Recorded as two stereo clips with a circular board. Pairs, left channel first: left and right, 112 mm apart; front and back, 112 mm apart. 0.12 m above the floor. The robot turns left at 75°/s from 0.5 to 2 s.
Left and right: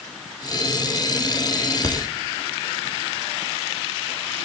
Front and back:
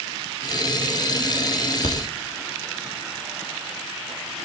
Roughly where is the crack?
Ahead left.